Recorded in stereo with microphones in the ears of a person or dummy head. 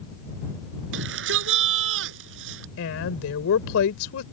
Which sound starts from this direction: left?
A woman speaking, at 2.8 s.